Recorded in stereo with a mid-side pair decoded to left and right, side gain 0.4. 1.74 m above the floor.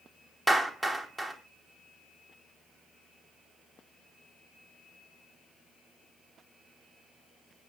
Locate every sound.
0.5 s a clap: 5° right, 4 m